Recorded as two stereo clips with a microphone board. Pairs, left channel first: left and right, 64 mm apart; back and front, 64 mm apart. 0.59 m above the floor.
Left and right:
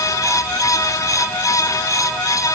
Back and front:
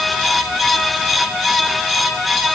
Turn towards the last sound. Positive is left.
No sound to turn to.